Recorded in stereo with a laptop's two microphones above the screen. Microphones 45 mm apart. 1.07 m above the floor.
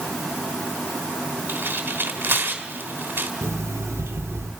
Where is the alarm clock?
85° right, 1.9 m.